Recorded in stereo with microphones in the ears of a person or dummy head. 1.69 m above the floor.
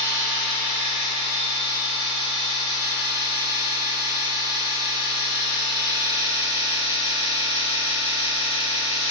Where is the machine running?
30° right (ahead or behind), 1.8 m.